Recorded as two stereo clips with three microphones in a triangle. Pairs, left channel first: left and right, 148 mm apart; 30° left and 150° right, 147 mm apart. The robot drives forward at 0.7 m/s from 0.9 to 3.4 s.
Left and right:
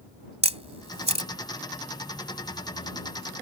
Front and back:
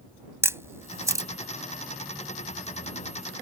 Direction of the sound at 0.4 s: 85° right.